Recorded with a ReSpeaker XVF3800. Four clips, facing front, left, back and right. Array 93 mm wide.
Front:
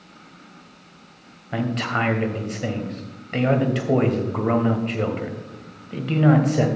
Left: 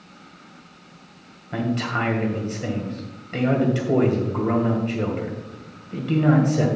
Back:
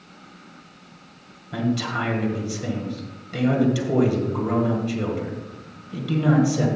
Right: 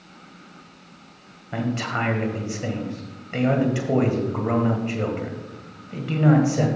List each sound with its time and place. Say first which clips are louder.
1.5 s a man speaking: left 1 dB, front 1 dB; 10° right, 1.5 m